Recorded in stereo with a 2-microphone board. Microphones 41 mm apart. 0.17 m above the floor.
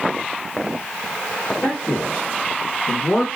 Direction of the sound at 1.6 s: 40° left (ahead or behind).